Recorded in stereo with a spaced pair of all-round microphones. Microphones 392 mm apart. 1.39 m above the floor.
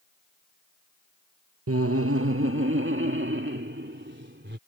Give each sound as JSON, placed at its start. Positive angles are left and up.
{"t": 1.7, "sound": "laughter", "side_deg": -35}